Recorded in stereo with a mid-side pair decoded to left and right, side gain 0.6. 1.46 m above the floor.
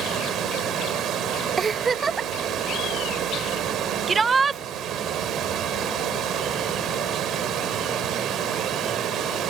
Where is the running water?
55° right.